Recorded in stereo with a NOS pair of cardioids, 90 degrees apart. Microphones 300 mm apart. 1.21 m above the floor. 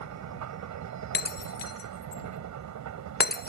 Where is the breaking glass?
35° left.